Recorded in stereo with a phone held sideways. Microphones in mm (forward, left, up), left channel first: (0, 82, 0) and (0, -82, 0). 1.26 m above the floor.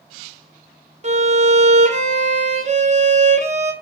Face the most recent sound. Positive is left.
turn(degrees=-45)  # may be behind; listen again after turning